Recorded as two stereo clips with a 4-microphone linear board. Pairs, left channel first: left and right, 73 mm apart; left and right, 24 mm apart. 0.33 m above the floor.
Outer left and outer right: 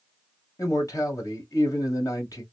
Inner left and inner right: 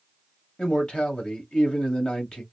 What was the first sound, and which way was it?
A man speaking, 55° left (ahead or behind).